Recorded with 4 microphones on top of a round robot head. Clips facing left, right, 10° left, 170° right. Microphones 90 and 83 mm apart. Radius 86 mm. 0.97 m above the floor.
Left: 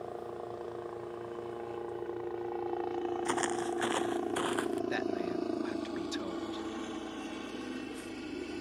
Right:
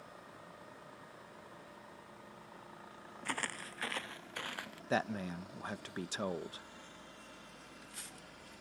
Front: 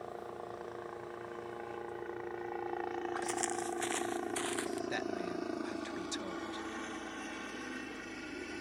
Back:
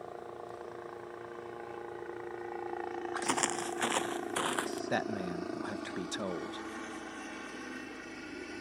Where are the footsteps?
165° left; by 4.8 s 150° left.